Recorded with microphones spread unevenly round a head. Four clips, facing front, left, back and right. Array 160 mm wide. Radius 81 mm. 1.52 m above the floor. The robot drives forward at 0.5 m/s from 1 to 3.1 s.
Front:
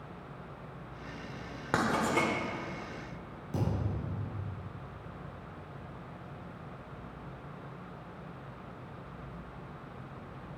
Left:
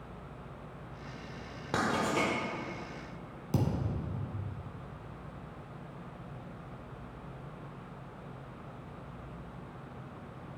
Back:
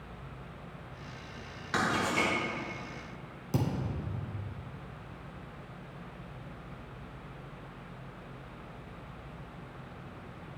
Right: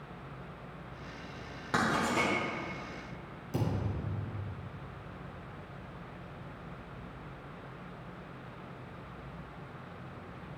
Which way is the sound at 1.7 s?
10° left.